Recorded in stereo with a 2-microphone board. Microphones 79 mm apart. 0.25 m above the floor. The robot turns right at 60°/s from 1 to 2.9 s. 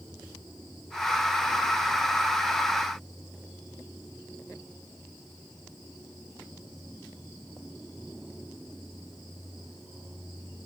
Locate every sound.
Only background noise.